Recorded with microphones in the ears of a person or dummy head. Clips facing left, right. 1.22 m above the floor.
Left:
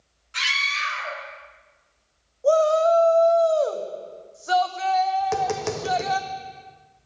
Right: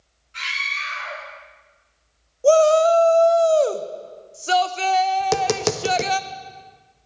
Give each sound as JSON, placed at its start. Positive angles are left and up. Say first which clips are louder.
{"t": 0.3, "sound": "a scream", "louder": "left 2 dB", "side_deg": 70, "distance_m": 1.4}
{"t": 2.4, "sound": "a shout", "louder": "right 4 dB", "side_deg": -40, "distance_m": 0.5}
{"t": 5.2, "sound": "tapping", "louder": "right 3 dB", "side_deg": -50, "distance_m": 0.6}